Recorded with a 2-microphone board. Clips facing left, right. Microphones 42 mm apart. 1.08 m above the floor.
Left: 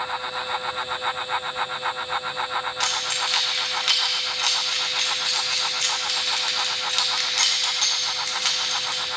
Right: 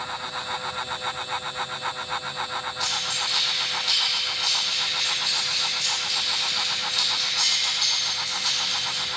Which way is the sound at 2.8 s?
65° left (ahead or behind).